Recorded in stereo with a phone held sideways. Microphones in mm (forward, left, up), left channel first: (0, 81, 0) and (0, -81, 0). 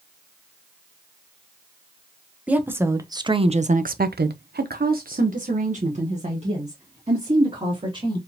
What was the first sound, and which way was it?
A woman speaking, 10° right (ahead or behind).